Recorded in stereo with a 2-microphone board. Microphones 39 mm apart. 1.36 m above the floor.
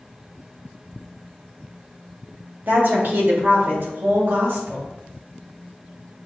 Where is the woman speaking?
55° right (ahead or behind), 1.3 m; by 4.9 s 75° right (ahead or behind), 1.9 m.